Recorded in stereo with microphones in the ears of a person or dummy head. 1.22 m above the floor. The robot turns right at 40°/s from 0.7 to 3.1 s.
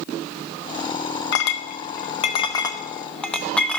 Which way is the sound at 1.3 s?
60° left (ahead or behind).